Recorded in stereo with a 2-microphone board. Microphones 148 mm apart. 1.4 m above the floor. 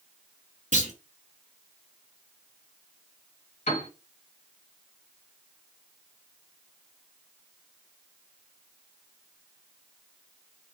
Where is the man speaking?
No man speaking in this recording.